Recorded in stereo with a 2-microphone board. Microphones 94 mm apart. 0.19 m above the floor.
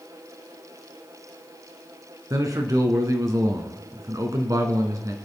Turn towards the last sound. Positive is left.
turn(degrees=-40)  # may be behind; listen again after turning